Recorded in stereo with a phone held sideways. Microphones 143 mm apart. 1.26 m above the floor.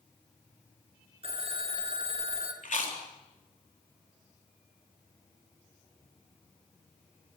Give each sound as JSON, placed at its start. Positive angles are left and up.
{"t": 1.2, "sound": "a phone ringing", "side_deg": -40, "distance_m": 2.5}
{"t": 2.6, "sound": "chewing", "side_deg": 65, "distance_m": 3.5}